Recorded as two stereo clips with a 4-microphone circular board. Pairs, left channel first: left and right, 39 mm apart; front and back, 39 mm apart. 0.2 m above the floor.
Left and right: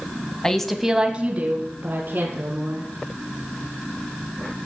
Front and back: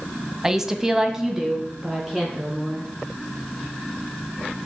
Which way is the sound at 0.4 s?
125° left.